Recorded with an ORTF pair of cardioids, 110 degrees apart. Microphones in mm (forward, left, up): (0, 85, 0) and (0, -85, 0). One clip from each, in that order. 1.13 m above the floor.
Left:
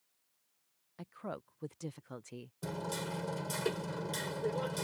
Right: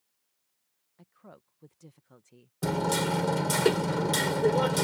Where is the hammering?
65° right.